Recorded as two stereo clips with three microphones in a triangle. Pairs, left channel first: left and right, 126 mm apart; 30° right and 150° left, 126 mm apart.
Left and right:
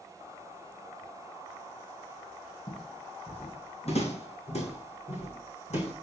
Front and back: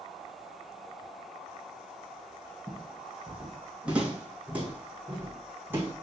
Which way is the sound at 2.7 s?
65° left.